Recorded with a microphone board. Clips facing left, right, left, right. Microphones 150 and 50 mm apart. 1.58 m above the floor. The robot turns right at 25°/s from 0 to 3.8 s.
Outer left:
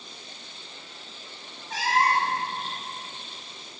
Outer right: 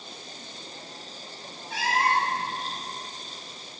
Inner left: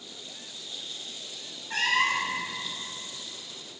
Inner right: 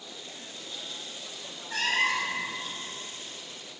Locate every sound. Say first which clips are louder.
1.7 s a cat meowing: outer left 1 dB, inner left 2 dB; 40° left (ahead or behind), 1.2 m; by 2.4 s 35° left (ahead or behind), 1.2 m